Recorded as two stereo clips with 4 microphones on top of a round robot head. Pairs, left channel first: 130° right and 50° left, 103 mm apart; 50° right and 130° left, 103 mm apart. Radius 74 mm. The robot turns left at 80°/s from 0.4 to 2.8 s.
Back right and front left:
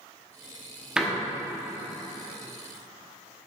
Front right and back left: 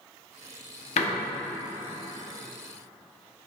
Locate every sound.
1.0 s a door slam: 30° right, 1.2 m; by 1.1 s 40° right, 1.2 m